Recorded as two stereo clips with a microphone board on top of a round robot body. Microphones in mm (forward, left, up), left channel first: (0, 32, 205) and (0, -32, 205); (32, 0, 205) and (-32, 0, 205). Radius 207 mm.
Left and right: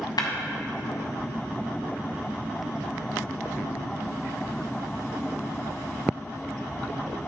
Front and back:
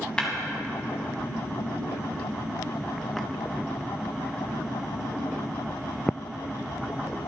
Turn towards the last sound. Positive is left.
turn(degrees=80)